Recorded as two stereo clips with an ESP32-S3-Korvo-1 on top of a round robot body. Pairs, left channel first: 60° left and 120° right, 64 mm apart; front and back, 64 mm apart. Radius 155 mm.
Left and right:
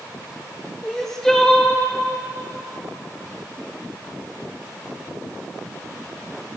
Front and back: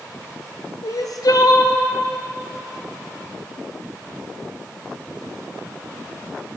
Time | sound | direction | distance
0.8 | crying | 25° right | 0.9 m